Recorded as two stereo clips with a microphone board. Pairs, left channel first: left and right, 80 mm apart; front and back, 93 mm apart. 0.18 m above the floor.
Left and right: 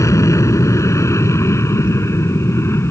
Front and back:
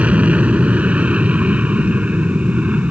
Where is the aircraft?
110° left; by 2.9 s 115° left.